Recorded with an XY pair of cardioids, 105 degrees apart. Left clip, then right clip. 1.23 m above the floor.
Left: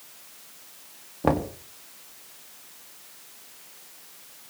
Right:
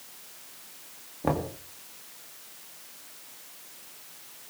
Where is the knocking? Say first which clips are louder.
Left 4 dB; 40° left, 2 m.